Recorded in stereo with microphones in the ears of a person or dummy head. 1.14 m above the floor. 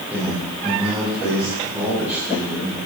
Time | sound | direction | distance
0.1 | a man speaking | 10° right (ahead or behind) | 8 m